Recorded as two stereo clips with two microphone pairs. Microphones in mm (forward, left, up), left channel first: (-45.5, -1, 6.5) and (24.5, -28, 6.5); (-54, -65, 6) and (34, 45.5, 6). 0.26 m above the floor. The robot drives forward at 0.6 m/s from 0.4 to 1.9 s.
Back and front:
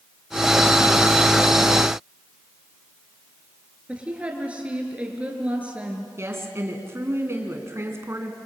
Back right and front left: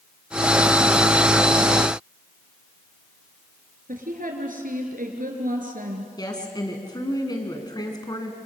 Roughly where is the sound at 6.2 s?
Right.